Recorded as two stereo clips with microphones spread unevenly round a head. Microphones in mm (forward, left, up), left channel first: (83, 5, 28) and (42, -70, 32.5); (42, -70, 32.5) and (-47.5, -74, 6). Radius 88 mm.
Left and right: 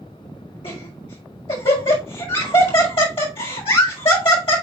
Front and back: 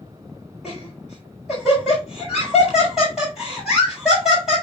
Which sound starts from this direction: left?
Laughter, at 0.6 s.